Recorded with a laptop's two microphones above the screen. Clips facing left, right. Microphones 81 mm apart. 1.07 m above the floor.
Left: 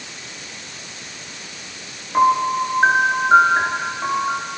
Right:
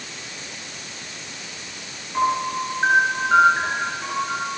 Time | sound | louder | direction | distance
2.1 | a piano | left 6 dB | 35° left (ahead or behind) | 6.5 m